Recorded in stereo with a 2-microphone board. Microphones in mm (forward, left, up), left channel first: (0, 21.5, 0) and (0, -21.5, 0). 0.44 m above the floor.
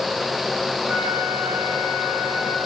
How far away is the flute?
About 9 m.